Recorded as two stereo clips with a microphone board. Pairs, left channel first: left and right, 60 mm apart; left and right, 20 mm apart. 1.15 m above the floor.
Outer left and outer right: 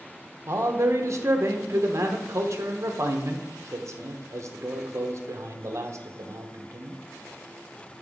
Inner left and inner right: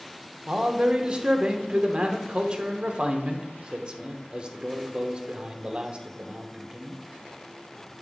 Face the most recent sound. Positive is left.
turn(degrees=-55)  # may be behind; listen again after turning